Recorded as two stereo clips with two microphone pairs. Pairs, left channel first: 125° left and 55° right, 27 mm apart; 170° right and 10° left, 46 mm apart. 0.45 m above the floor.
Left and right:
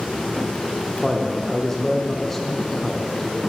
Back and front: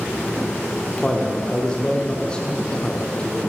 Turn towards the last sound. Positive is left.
turn(degrees=-170)